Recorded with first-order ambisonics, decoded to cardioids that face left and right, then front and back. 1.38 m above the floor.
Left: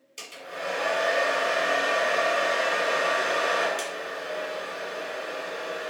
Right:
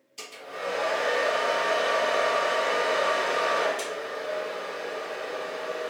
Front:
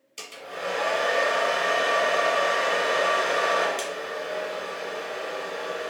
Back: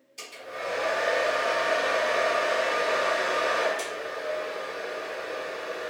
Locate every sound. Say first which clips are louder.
0.2 s a hair dryer: even, front 2 dB; 35° left, 1.5 m